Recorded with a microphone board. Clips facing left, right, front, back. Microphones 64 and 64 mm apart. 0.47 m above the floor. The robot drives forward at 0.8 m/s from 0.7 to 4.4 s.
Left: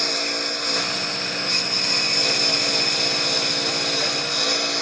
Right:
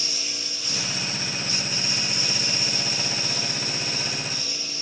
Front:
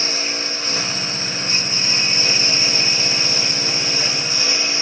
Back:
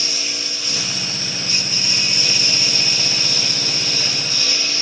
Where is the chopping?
No chopping in this recording.